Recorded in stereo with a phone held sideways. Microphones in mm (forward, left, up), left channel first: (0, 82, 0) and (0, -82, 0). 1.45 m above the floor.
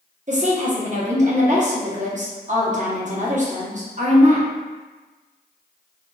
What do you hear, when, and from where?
0.3 s a woman speaking: 45° right (ahead or behind), 0.9 m